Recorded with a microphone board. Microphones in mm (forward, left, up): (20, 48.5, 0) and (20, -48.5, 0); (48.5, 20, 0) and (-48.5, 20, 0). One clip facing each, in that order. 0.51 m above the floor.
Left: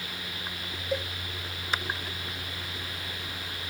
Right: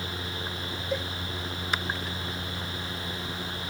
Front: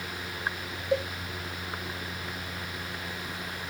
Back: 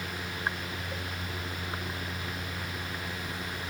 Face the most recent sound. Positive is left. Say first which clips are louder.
# left 1 dB, front 12 dB
turn(degrees=0)